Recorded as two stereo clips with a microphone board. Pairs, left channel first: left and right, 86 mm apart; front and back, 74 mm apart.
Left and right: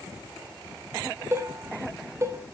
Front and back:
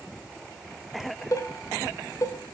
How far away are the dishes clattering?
About 1.4 m.